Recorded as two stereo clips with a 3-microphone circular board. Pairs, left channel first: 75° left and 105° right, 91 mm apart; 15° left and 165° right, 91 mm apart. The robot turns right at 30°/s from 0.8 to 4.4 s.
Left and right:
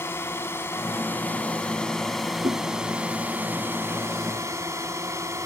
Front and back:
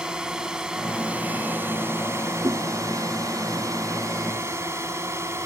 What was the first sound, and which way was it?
A drone, 120° left.